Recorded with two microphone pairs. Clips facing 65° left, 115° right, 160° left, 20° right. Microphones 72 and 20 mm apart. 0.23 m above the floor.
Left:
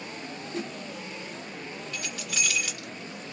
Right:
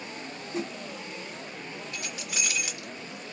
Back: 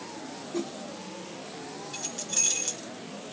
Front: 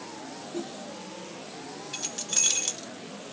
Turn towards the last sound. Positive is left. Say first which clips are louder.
# left 2 dB, front 2 dB
turn(degrees=-60)